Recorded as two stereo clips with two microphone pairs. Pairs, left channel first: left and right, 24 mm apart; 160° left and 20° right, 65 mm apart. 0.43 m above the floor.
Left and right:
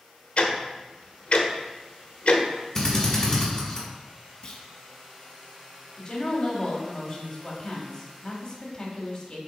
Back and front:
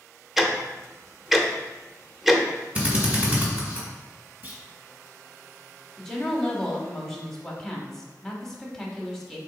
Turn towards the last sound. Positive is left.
turn(degrees=85)